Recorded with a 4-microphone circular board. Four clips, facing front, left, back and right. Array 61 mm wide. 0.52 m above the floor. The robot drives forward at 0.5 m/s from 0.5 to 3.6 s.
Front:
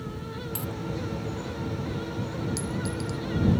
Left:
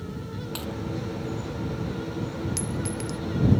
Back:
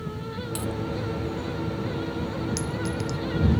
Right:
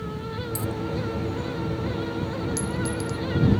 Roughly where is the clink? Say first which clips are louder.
Right 3 dB, back 2 dB; behind left.